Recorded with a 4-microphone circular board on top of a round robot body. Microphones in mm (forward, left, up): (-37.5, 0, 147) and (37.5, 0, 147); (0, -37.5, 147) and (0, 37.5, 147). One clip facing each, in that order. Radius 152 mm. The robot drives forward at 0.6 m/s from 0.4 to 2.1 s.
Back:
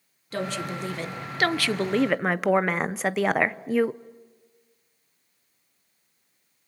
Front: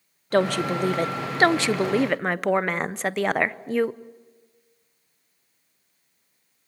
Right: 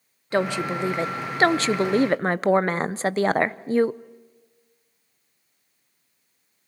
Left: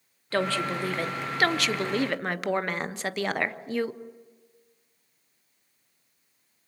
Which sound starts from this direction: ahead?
A woman speaking, at 0.3 s.